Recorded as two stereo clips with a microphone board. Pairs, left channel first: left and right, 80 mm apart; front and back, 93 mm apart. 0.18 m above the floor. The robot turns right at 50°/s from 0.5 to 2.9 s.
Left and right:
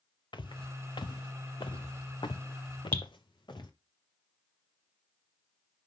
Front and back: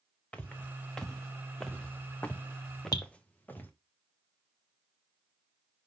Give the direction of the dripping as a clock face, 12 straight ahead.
11 o'clock.